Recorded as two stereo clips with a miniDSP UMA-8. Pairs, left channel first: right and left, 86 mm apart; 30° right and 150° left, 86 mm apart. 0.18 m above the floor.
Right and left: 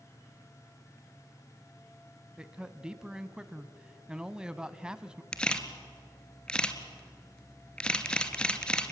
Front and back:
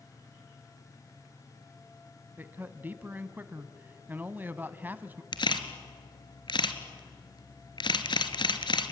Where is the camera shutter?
10° right, 1.6 m.